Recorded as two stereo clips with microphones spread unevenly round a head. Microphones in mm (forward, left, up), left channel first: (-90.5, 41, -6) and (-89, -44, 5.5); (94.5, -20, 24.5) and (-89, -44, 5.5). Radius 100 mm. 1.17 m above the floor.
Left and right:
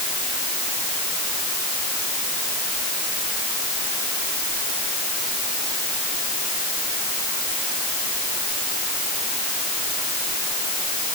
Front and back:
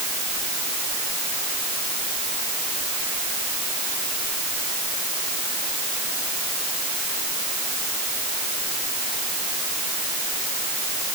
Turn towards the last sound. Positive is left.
No sound to turn to.